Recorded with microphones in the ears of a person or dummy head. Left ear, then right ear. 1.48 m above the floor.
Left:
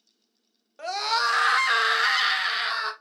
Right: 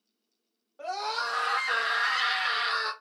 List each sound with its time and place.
0.8 s a scream: 75° left (ahead or behind), 1.1 m; by 2.9 s 5° left (ahead or behind), 1.1 m